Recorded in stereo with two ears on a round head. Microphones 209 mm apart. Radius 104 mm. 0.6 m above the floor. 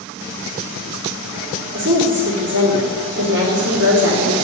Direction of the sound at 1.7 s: 50° right (ahead or behind).